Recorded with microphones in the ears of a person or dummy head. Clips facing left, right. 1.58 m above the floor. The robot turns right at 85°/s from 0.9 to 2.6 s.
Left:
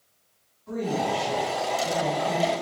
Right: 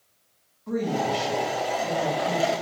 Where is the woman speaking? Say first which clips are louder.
Right 1 dB; 105° right, 1.8 m; by 2.5 s 30° left, 1.8 m.